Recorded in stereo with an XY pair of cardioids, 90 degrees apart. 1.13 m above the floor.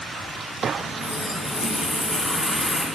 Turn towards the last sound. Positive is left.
turn(degrees=30)